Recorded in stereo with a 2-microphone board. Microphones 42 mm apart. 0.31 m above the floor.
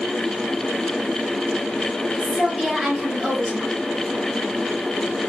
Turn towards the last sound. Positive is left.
turn(degrees=-15)  # may be behind; listen again after turning